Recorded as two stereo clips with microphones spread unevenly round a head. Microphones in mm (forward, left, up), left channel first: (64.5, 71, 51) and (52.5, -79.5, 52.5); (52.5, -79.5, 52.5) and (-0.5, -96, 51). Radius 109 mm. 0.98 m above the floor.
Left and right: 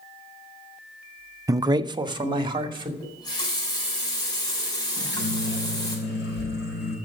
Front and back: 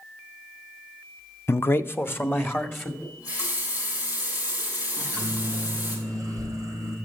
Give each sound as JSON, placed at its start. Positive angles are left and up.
{"t": 1.5, "sound": "a man speaking", "azimuth_deg": -25, "distance_m": 0.5}
{"t": 3.0, "sound": "a running tap", "azimuth_deg": 20, "distance_m": 5.0}
{"t": 5.0, "sound": "a microwave", "azimuth_deg": 95, "distance_m": 5.5}